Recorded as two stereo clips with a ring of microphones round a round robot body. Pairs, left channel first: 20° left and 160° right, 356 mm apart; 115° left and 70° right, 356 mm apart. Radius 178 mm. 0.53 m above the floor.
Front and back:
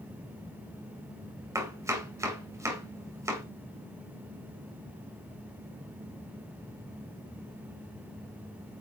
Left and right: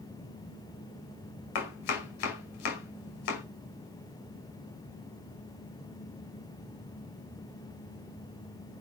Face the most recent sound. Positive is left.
turn(degrees=120)